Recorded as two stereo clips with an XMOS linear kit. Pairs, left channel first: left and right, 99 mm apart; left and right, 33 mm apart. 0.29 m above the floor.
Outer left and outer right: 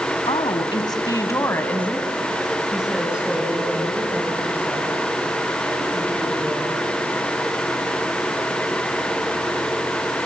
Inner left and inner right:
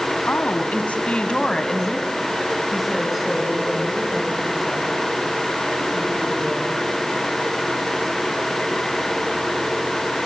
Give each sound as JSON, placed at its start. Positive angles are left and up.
{"t": 0.3, "sound": "a woman speaking", "side_deg": 60, "distance_m": 1.9}